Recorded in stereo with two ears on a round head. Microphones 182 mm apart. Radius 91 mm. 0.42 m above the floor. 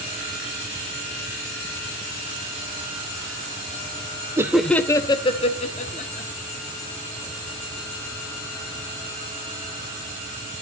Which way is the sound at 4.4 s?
15° right (ahead or behind).